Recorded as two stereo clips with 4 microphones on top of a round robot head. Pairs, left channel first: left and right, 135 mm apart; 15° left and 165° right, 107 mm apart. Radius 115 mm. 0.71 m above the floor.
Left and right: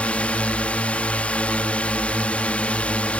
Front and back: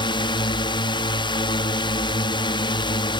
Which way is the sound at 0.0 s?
10° left.